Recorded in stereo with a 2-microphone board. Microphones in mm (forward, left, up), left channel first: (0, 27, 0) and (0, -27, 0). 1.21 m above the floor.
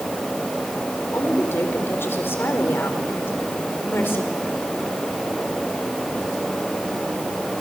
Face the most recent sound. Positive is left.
turn(degrees=45)  # may be behind; listen again after turning